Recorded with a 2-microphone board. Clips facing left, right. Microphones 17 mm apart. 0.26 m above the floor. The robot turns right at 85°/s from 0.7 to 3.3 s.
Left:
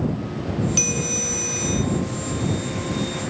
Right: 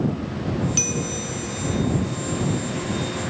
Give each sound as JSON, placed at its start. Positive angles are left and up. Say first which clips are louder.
{"t": 0.8, "sound": "a bell", "louder": "left 2 dB", "azimuth_deg": 5}